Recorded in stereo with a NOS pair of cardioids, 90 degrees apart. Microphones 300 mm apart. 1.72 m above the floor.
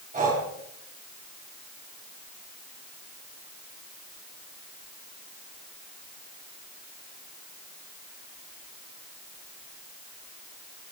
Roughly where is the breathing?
Ahead right.